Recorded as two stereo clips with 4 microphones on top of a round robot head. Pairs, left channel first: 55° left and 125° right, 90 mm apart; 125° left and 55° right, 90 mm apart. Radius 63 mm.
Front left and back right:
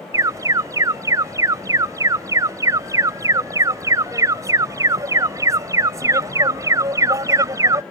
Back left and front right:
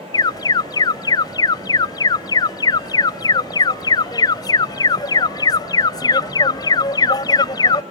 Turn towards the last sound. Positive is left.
turn(degrees=175)